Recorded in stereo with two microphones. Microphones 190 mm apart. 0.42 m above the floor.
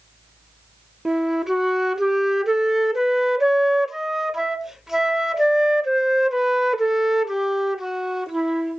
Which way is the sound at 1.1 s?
Centre (ahead or behind).